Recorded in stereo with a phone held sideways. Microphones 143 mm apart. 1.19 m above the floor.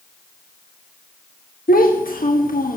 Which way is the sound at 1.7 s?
80° left.